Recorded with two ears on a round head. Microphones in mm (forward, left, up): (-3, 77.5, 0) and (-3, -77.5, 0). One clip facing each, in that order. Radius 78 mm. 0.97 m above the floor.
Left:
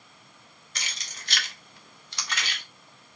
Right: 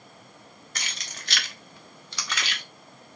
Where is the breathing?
No breathing in this recording.